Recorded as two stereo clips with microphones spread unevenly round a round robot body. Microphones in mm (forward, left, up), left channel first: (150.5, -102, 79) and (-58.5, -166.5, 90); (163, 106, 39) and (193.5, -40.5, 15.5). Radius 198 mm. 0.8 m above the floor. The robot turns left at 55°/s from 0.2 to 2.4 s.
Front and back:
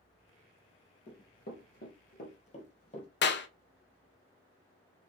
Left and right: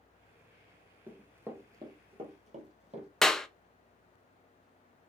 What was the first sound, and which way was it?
Running footsteps, 10° left.